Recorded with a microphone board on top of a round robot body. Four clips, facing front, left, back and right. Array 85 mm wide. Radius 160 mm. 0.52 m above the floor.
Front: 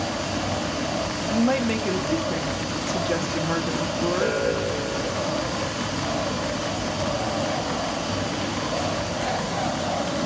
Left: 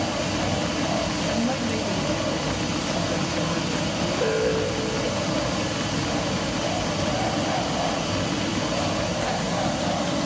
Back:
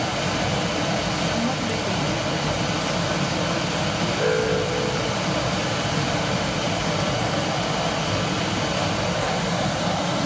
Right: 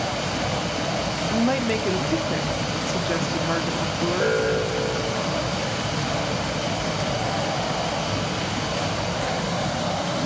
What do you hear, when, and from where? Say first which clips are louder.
0.0 s running water: left 1 dB, back 2 dB; 155° right, 1.8 m
1.3 s a woman speaking: right 6 dB, front 3 dB; 65° right, 1.6 m
4.2 s an alarm: even, back 2 dB; 110° right, 6 m